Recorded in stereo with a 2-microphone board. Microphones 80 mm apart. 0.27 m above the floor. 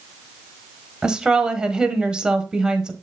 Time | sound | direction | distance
1.0 | a woman speaking | 10° right (ahead or behind) | 1.2 m